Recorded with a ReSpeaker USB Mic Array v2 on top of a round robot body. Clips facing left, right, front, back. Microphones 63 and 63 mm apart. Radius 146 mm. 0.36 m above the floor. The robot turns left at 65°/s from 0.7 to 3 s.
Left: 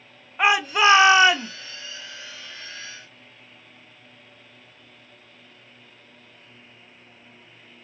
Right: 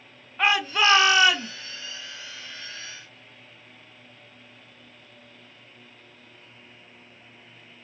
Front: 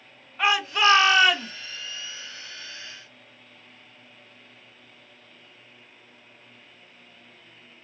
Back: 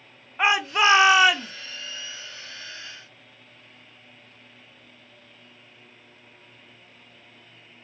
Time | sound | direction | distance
0.4 | a shout | 145° left | 0.8 m